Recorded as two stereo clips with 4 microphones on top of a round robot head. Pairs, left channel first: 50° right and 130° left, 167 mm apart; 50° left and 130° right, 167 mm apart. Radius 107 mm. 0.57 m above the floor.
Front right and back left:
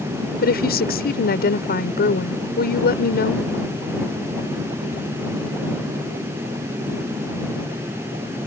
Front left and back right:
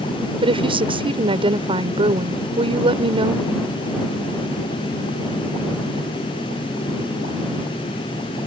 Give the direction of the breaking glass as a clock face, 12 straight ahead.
No breaking glass in this recording.